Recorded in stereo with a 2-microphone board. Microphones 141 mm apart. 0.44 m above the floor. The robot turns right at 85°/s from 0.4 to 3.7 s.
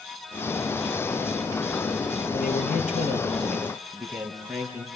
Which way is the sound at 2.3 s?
70° left.